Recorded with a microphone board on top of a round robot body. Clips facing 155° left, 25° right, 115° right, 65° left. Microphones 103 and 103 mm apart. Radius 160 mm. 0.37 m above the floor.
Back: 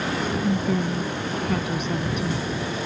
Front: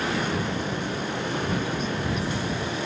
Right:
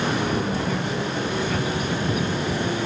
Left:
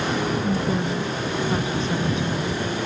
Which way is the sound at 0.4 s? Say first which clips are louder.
Back 5 dB, left 2 dB; 135° left.